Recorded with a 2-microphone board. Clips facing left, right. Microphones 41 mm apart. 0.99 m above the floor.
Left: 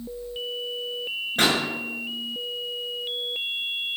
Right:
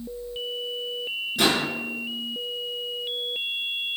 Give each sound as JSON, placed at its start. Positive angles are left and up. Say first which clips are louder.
{"t": 1.4, "sound": "a pop", "louder": "even", "side_deg": 40, "distance_m": 8.0}